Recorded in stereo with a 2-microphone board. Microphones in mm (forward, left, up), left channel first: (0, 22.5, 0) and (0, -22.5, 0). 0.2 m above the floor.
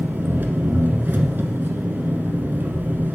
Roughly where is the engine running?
Right.